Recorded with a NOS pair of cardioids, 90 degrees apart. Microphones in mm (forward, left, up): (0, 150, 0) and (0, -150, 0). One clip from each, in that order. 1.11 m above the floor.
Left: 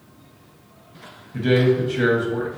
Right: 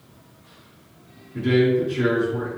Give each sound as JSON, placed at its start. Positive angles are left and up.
{"t": 1.3, "sound": "a man speaking", "azimuth_deg": 65, "distance_m": 1.2}